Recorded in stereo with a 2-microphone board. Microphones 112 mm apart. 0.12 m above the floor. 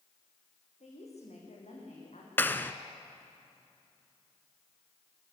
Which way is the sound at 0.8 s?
75° left (ahead or behind).